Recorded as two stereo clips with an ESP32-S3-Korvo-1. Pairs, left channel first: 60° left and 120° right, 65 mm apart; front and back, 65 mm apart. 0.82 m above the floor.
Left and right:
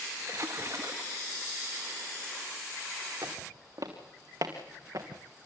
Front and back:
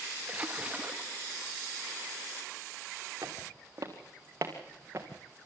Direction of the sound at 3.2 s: 140° right.